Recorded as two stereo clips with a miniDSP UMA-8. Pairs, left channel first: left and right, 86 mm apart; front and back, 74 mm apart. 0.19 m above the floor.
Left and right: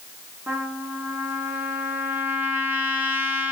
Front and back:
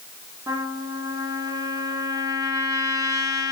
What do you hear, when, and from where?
0.5 s a trumpet: 155° right, 0.8 m